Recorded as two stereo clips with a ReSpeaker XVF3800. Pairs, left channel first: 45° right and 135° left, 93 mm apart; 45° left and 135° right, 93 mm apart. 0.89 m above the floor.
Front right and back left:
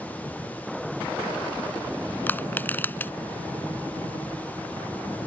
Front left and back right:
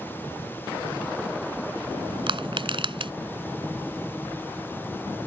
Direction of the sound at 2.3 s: 115° right.